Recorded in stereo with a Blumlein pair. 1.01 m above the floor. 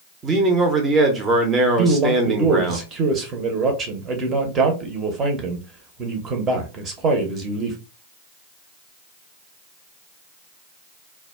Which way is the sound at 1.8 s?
25° right.